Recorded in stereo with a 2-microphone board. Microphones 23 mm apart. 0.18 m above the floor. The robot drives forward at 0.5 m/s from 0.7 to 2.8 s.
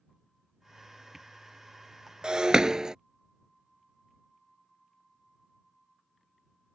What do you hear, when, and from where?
2.2 s breaking glass: 40° right (ahead or behind); by 3.0 s 30° right (ahead or behind)